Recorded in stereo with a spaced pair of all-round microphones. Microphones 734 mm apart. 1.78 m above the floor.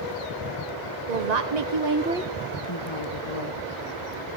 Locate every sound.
1.1 s a woman speaking: 70° right (ahead or behind), 1.5 m; by 3.6 s 55° left (ahead or behind), 2 m